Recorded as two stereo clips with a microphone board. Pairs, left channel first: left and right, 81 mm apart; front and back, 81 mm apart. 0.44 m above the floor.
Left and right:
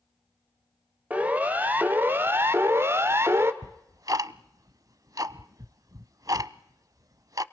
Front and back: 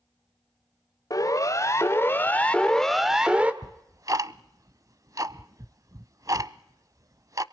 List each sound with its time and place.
1.1 s a siren: 20° right, 2 m; by 3.5 s 120° right, 1.6 m
3.6 s ticking: 135° right, 0.7 m